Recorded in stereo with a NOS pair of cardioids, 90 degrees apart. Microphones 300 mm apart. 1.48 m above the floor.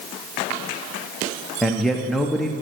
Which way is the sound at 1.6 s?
Straight ahead.